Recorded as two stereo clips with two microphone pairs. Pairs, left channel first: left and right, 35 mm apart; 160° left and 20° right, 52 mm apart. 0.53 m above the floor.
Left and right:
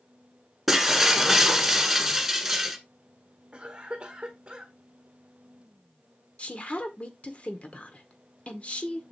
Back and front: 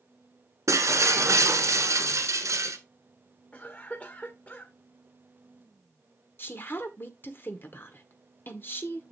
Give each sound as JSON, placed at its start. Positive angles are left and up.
{"t": 0.7, "sound": "breaking glass", "azimuth_deg": -10, "distance_m": 1.6}
{"t": 3.5, "sound": "a cough", "azimuth_deg": -145, "distance_m": 1.5}
{"t": 6.4, "sound": "a woman speaking", "azimuth_deg": 130, "distance_m": 1.6}